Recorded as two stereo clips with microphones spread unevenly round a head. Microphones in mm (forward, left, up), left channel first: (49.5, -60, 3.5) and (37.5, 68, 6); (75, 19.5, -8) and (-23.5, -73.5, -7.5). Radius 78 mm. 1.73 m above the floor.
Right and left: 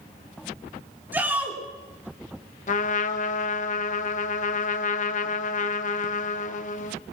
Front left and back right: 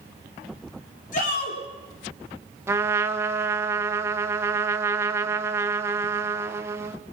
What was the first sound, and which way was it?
A shout, 20° left.